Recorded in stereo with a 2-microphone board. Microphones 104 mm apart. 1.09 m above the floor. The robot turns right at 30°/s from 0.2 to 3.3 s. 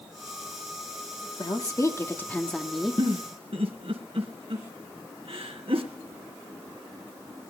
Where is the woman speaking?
140° left, 2 m; by 3.0 s 175° right, 2 m.